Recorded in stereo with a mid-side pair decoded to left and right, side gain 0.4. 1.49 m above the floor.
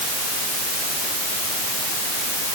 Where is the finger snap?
No finger snap in this recording.